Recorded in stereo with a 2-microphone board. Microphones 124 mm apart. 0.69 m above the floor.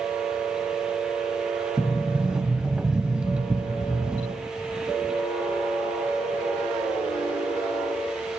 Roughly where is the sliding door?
Centre.